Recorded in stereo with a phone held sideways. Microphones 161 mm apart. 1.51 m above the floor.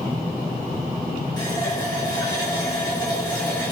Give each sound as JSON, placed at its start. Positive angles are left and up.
{"t": 1.4, "sound": "a running tap", "side_deg": 25, "distance_m": 6.5}